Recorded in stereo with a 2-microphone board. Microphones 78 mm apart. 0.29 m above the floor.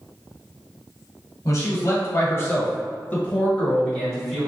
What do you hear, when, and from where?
1.4 s a man speaking: 45° left (ahead or behind), 1.7 m; by 4.5 s centre (ahead or behind), 1.3 m